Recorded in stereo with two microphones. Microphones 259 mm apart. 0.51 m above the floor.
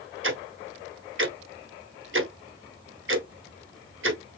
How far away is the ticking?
About 0.6 m.